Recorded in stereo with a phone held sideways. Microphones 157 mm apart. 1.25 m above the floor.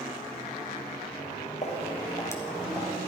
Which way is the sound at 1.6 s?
45° left (ahead or behind).